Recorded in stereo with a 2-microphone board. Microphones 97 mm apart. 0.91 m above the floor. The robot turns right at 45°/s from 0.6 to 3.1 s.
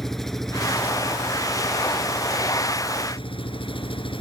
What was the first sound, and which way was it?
An engine running, 5° left.